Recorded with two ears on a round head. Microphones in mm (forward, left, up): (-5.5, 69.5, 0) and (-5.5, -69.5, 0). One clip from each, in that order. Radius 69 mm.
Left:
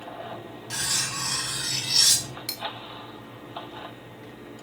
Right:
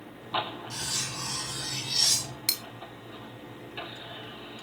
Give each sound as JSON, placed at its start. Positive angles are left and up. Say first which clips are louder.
{"t": 0.7, "sound": "cutlery clinking", "louder": "left 7 dB", "side_deg": 40, "distance_m": 2.0}
{"t": 2.5, "sound": "cutlery clinking", "louder": "right 6 dB", "side_deg": -35, "distance_m": 0.6}